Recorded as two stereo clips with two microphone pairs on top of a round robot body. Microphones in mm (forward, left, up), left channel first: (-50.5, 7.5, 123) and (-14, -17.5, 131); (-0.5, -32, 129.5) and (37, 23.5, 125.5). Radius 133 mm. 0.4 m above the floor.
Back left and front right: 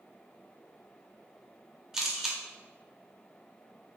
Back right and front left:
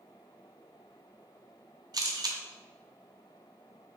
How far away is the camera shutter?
About 0.7 m.